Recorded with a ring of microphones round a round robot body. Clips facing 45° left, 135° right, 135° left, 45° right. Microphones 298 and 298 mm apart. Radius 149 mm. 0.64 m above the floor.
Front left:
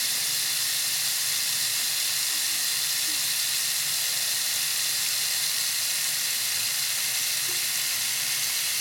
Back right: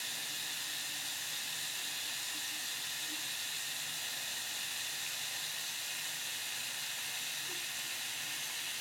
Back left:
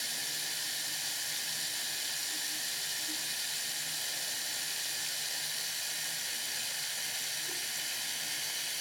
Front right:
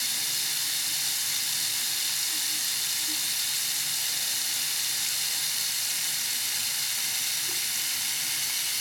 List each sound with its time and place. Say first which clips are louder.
0.0 s running water: front left 6 dB, front right 2 dB; 20° left, 1.1 m